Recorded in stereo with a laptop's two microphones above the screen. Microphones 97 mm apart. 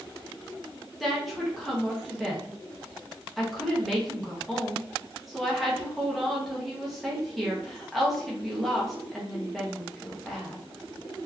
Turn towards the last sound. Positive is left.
turn(degrees=0)  # may be behind; listen again after turning